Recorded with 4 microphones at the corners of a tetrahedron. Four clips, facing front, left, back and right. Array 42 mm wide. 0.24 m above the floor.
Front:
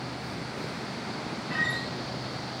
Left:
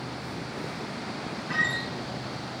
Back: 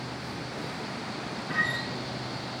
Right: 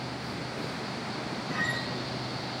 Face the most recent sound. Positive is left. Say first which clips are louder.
# left 5 dB, back 1 dB
turn(degrees=105)